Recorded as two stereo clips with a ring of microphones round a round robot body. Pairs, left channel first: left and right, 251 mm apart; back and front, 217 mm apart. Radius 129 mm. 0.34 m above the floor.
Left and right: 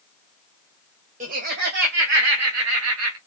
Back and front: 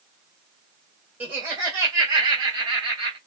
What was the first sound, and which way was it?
Laughter, 75° right.